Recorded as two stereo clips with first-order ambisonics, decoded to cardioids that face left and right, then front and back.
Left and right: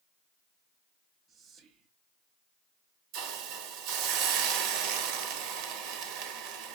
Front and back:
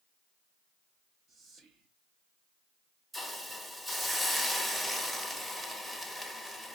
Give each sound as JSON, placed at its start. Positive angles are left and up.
{"t": 1.3, "sound": "whispering", "azimuth_deg": -135, "distance_m": 0.7}
{"t": 3.1, "sound": "a hiss", "azimuth_deg": -95, "distance_m": 0.8}